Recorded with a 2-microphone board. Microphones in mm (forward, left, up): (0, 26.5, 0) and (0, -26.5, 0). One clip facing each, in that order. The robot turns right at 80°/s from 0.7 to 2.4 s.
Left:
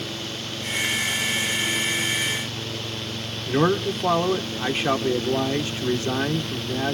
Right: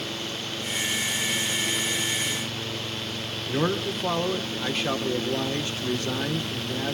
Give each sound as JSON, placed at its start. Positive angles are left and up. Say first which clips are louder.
{"t": 3.5, "sound": "a man speaking", "louder": "left 5 dB", "side_deg": 20, "distance_m": 1.1}